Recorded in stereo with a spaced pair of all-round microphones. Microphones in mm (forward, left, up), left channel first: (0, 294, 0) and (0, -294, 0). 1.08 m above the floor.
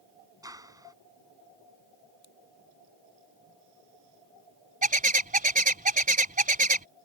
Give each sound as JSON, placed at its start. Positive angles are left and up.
{"t": 0.4, "sound": "a clap", "side_deg": -5}
{"t": 2.2, "sound": "scissors", "side_deg": 75}
{"t": 4.8, "sound": "a bird", "side_deg": -15}